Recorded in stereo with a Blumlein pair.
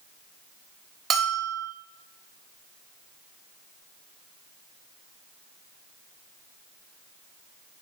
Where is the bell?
20° right, 2.5 m.